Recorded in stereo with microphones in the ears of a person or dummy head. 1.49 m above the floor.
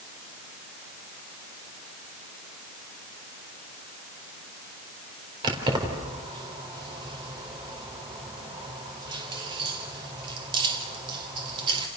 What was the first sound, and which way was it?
Keys jangling, 25° right (ahead or behind).